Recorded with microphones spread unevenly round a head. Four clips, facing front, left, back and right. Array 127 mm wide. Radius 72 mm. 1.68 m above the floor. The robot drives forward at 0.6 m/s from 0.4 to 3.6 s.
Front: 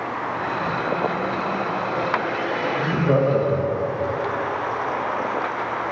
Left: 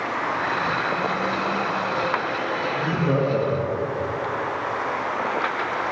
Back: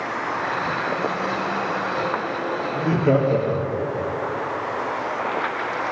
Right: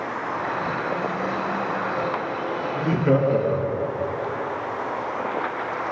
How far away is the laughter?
About 4.5 m.